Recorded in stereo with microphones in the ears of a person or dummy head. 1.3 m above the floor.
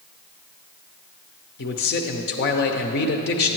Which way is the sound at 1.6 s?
50° left (ahead or behind).